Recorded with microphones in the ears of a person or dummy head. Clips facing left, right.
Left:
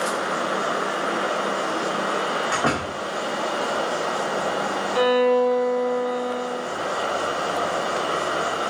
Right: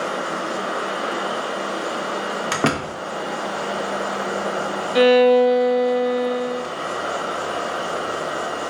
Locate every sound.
2.5 s a door slam: 50° right (ahead or behind), 0.8 m
5.0 s a violin: 35° right (ahead or behind), 0.6 m